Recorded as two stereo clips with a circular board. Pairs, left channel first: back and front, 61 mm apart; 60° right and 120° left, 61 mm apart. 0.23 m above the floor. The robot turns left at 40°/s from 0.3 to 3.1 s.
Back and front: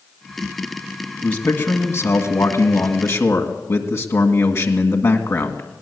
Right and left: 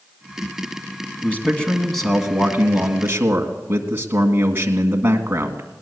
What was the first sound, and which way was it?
A man speaking, 120° right.